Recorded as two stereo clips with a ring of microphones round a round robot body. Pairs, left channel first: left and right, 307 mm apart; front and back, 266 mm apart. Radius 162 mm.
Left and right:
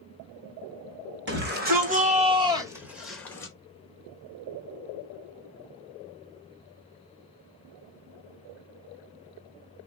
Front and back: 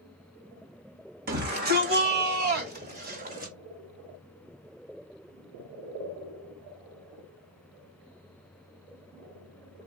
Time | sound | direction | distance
1.3 | a shout | 135° right | 2.5 m